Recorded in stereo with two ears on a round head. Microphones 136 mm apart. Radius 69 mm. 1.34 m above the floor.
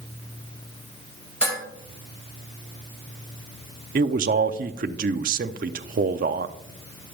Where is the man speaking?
60° right (ahead or behind), 0.5 m.